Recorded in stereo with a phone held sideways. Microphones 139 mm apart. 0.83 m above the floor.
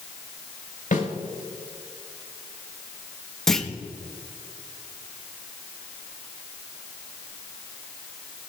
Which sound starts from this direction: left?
A snare drum, at 0.9 s.